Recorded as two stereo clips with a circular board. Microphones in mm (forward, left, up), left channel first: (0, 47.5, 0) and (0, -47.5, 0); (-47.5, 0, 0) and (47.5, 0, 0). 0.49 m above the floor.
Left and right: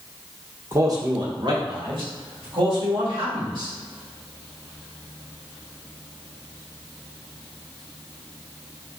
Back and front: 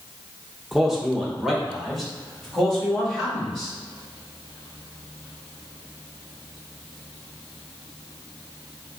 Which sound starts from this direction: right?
A man speaking, at 0.7 s.